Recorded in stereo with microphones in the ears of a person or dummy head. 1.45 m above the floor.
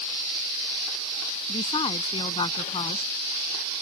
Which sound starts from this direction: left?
A woman speaking, at 1.5 s.